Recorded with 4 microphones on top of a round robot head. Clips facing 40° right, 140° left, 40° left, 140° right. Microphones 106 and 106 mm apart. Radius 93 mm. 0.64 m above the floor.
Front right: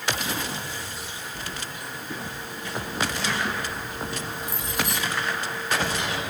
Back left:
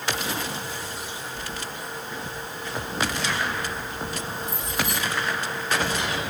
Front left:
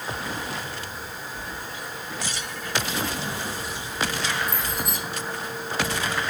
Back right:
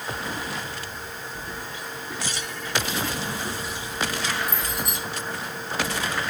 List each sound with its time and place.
1.4 s keys jangling: 70° right, 7.5 m; by 5.0 s 50° right, 7.5 m